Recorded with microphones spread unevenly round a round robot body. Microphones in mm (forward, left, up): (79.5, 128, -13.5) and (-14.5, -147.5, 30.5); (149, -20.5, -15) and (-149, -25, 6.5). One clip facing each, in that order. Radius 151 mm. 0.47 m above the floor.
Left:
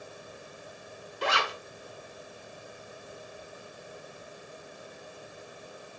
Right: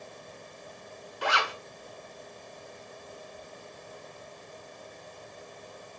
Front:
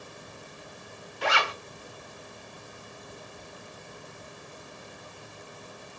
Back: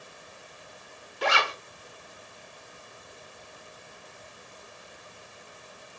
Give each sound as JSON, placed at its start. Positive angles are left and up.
{"t": 1.2, "sound": "a zipper", "azimuth_deg": 130, "distance_m": 0.7}